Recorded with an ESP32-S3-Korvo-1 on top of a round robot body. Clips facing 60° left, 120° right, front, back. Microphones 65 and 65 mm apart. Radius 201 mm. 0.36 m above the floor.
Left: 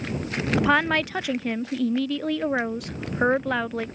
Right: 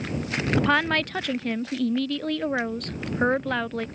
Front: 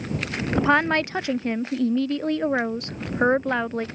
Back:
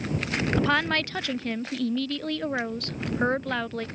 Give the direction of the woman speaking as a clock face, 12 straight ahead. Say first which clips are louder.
Left 2 dB, front 6 dB; 12 o'clock.